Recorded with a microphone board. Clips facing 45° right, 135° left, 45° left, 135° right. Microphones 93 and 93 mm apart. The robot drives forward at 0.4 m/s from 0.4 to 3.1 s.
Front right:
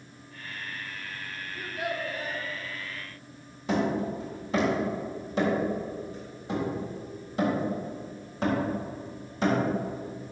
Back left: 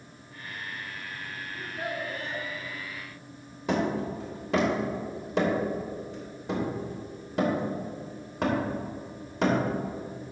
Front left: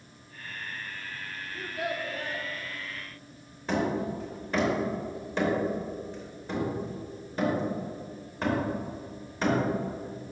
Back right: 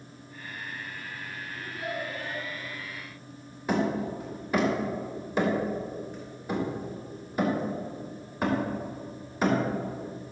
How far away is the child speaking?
About 2.0 m.